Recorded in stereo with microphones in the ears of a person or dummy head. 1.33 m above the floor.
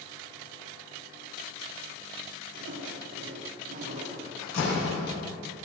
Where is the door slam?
85° left, 5.5 m.